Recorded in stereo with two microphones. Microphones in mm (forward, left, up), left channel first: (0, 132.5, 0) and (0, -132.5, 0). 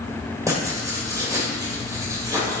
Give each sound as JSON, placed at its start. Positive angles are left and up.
{"t": 0.5, "sound": "writing", "side_deg": -10, "distance_m": 1.7}